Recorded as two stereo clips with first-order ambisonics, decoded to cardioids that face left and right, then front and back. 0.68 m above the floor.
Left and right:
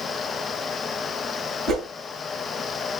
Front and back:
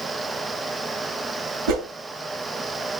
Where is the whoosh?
155° right, 1.0 m.